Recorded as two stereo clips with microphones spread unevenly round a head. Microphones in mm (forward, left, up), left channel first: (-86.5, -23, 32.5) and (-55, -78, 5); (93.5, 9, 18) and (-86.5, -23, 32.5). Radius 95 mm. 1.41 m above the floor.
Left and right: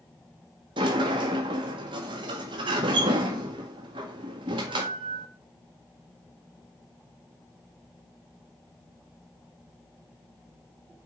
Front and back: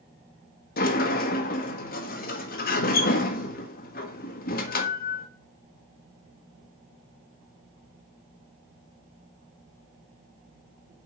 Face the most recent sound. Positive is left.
turn(degrees=-35)